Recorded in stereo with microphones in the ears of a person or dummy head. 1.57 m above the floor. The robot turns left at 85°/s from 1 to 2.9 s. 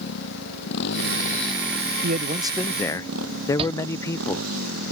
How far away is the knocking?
I don't hear knocking.